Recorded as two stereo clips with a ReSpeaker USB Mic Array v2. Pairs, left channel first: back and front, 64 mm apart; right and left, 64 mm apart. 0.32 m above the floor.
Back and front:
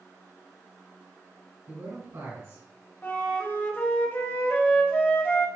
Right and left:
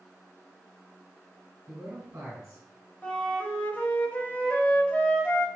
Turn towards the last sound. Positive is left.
turn(degrees=-145)